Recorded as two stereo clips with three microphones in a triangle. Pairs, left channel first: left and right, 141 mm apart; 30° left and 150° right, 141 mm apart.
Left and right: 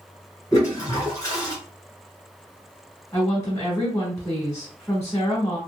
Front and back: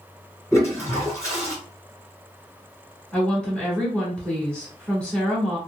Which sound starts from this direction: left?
A woman speaking, at 3.1 s.